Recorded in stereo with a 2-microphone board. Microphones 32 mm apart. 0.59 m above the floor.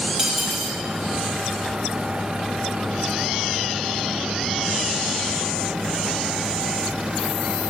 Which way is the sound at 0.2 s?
20° right (ahead or behind).